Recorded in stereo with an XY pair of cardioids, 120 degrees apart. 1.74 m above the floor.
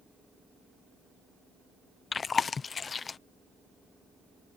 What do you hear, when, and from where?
2.1 s chewing: 35° left